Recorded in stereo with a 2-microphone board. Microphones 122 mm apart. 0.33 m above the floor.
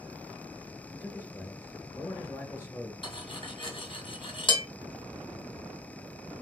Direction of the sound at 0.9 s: 25° left (ahead or behind).